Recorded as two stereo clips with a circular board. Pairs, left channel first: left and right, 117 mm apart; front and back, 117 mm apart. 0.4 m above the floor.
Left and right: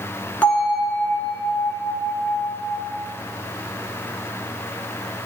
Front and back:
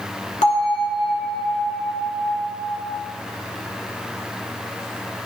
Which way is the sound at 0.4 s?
15° left.